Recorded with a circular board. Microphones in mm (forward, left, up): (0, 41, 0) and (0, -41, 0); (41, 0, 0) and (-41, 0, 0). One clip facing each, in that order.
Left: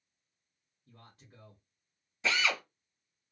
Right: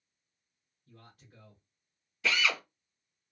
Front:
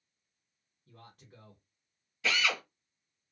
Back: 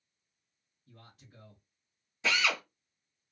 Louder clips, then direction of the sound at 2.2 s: Right 1 dB, back 1 dB; 135° left.